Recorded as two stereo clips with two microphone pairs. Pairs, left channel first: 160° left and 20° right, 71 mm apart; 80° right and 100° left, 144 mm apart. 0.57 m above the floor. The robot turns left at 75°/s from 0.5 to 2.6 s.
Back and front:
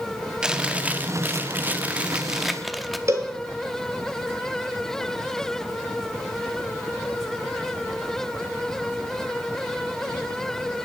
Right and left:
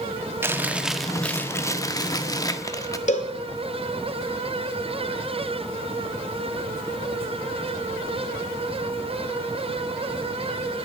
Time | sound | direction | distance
0.4 | chewing | 50° left | 0.9 m
3.1 | a cowbell | 55° right | 2 m